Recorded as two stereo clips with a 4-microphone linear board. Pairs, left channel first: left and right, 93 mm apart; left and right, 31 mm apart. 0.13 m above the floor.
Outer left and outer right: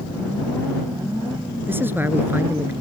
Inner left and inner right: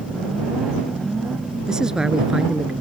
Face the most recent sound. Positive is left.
turn(degrees=-25)  # may be behind; listen again after turning